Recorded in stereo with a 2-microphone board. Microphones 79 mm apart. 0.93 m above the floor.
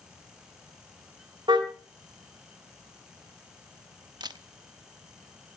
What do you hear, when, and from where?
1.5 s a car horn: 85° right, 2.5 m
4.2 s a camera shutter: 65° right (ahead or behind), 0.9 m